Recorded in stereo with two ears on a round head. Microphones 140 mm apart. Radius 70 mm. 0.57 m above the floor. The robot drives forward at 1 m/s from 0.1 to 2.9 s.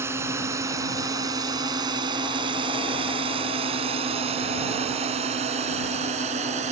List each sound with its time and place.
0.0 s a drone: 15° right (ahead or behind); by 6.7 s 45° right (ahead or behind)